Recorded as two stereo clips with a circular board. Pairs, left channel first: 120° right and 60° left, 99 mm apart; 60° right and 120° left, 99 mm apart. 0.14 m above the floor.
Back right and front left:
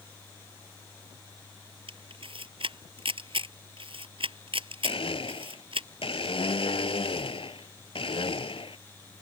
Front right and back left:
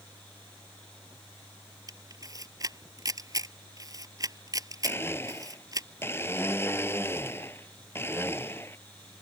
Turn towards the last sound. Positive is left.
turn(degrees=-120)